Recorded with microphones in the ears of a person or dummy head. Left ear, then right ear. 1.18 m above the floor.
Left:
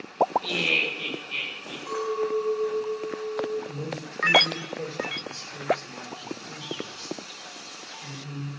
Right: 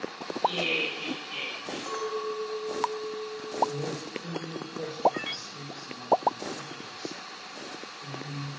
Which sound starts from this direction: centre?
A man speaking, at 3.7 s.